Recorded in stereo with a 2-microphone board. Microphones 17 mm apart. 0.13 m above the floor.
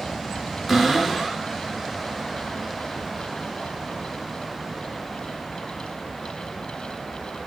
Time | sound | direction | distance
0.7 | a cupboard door | 10° right (ahead or behind) | 1.4 m